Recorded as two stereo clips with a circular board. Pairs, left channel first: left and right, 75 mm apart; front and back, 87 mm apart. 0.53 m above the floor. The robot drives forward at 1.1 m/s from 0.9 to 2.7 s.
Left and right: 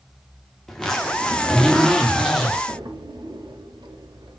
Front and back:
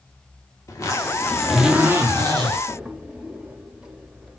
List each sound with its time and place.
0.7 s a zipper: 5° left, 1.1 m; by 2.6 s 175° left, 1.5 m
2.7 s a drawer: 100° right, 0.7 m; by 4.4 s 105° right, 0.7 m